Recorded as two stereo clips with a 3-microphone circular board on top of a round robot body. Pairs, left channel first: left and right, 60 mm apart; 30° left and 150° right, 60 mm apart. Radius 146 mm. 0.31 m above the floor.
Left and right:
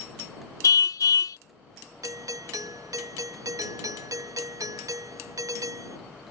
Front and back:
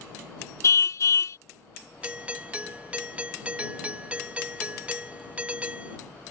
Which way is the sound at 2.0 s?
80° right.